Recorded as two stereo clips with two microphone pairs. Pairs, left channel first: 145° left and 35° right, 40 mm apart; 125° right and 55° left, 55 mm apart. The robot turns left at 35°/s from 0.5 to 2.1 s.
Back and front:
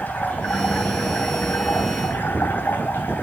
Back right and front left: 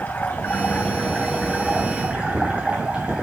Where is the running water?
Straight behind, 2.5 m; by 3.2 s 125° left, 2.5 m.